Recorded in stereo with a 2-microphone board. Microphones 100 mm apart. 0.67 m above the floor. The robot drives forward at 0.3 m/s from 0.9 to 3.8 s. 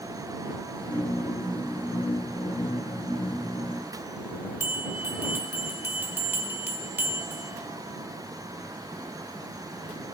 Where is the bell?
20° right (ahead or behind), 1.7 m.